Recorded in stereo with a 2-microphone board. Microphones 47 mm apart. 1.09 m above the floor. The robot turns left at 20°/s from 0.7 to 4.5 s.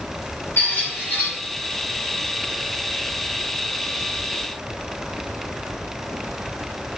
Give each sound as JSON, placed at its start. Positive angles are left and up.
{"t": 0.6, "sound": "a squeak", "side_deg": 55, "distance_m": 1.6}